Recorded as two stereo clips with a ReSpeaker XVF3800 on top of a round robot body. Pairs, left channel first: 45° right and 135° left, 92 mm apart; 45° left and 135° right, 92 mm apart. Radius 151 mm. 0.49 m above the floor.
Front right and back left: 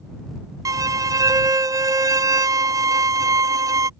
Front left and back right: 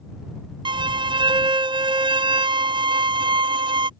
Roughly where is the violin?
Behind.